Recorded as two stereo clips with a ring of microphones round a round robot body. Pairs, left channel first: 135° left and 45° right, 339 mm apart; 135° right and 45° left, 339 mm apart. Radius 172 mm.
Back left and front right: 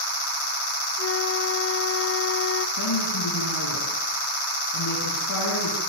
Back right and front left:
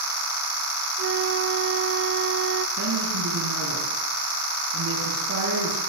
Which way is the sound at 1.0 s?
90° left.